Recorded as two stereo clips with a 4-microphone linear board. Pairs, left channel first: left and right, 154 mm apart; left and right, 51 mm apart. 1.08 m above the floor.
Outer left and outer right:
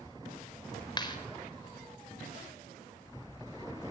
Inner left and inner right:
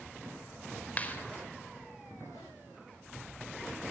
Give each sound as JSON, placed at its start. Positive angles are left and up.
{"t": 1.0, "sound": "a clap", "side_deg": 30, "distance_m": 4.5}